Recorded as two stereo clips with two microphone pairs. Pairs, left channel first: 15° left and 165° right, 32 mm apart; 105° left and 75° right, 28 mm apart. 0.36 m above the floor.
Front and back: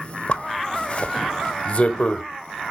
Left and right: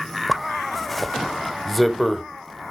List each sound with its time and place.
0.3 s a zipper: 20° left, 0.8 m